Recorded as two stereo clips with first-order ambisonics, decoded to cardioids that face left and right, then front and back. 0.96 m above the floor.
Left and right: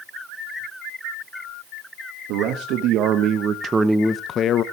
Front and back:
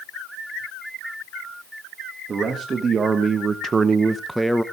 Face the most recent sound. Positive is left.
turn(degrees=90)